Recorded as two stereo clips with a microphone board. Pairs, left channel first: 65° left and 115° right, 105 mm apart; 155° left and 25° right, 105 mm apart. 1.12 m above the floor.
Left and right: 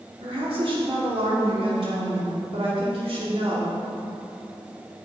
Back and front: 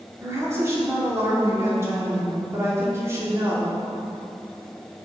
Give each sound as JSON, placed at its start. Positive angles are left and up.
{"t": 0.2, "sound": "a woman speaking", "azimuth_deg": -85, "distance_m": 3.0}